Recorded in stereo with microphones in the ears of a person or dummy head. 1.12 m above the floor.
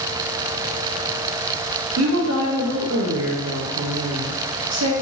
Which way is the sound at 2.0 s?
80° right.